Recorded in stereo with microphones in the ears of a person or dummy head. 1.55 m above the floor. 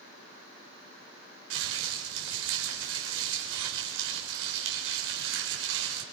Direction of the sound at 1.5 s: 85° right.